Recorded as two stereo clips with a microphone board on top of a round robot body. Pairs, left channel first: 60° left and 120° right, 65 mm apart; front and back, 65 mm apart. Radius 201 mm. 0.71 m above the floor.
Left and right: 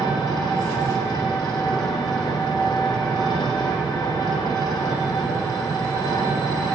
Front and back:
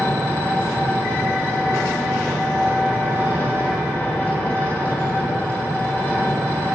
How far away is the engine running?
About 1.4 m.